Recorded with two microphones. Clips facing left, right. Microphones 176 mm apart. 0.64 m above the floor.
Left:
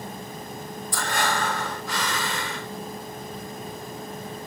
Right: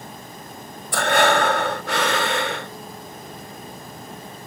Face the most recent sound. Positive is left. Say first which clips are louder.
# right 9 dB
turn(degrees=-70)  # may be behind; listen again after turning